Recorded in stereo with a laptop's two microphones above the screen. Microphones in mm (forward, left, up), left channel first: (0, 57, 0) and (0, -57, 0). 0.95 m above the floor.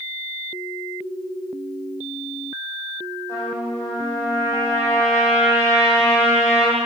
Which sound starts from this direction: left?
A trumpet, at 3.3 s.